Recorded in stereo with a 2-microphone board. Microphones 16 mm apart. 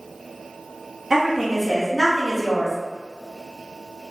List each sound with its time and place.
1.1 s a woman speaking: 30° right (ahead or behind), 0.6 m; by 2.8 s 30° left (ahead or behind), 0.9 m